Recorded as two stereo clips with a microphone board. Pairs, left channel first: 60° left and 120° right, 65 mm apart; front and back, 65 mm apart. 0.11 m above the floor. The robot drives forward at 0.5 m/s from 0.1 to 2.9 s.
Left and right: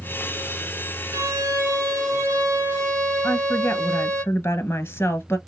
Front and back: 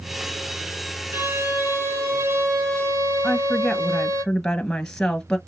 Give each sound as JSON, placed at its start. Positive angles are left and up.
{"t": 1.1, "sound": "a violin", "azimuth_deg": -135, "distance_m": 1.4}
{"t": 3.2, "sound": "a woman speaking", "azimuth_deg": 80, "distance_m": 1.3}